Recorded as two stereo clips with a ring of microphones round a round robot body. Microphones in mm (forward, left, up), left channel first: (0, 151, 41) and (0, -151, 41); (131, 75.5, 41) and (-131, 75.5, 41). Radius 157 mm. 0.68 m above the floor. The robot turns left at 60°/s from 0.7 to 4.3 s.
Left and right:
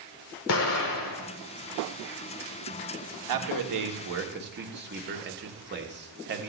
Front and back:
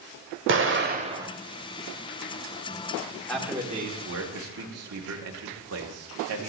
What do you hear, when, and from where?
0.5 s an explosion: 135° left, 1.2 m; by 1.3 s 100° left, 1.2 m
3.3 s a man speaking: 85° right, 1.4 m; by 6.5 s 145° right, 1.4 m